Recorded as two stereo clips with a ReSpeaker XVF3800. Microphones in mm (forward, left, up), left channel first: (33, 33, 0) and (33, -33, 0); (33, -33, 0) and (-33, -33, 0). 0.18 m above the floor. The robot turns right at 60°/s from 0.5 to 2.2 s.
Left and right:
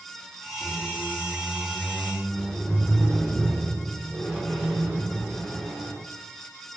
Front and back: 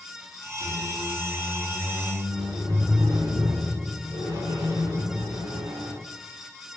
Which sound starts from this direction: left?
A squeak, at 0.6 s.